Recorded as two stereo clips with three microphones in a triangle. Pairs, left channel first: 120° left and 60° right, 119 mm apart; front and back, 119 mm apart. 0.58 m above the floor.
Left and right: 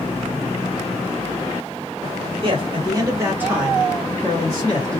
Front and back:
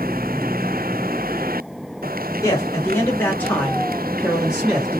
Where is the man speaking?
50° right, 1.2 m; by 5.0 s 110° left, 1.1 m.